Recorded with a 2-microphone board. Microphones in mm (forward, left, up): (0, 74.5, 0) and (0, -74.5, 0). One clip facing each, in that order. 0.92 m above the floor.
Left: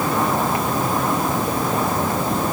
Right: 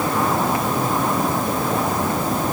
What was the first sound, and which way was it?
Only background noise.